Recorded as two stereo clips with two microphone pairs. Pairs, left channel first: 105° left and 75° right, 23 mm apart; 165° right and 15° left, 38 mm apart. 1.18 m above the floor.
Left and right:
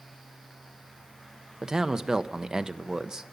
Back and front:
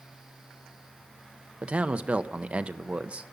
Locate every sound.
1.6 s a man speaking: 20° right, 0.8 m